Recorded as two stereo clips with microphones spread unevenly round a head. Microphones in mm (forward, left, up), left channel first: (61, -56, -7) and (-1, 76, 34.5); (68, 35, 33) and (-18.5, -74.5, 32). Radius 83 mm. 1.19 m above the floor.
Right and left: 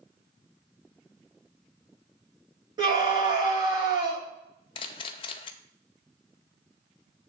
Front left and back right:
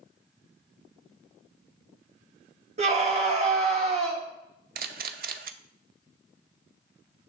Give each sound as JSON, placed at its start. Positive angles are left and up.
{"t": 2.8, "sound": "a scream", "azimuth_deg": -175, "distance_m": 2.0}
{"t": 4.8, "sound": "a camera shutter", "azimuth_deg": -135, "distance_m": 0.5}